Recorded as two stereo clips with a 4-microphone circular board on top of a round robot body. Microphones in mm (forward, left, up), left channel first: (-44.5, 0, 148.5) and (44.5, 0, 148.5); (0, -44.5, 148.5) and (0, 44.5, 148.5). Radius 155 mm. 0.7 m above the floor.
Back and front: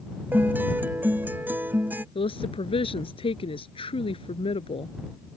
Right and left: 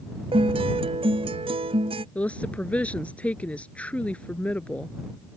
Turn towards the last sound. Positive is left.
turn(degrees=-165)